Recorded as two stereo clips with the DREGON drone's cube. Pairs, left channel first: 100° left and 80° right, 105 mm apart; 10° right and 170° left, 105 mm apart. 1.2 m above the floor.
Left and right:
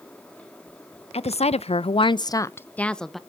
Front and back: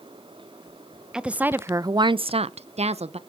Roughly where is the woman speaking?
Left.